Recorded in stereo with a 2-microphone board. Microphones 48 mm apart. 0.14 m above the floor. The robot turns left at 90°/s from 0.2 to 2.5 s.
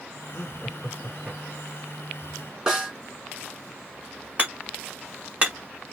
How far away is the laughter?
About 2 m.